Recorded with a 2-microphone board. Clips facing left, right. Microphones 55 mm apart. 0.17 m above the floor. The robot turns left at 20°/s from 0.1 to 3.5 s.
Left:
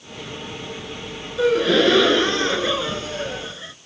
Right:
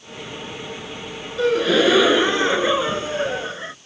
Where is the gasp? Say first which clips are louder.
Even; 5° left; by 3.8 s 40° right.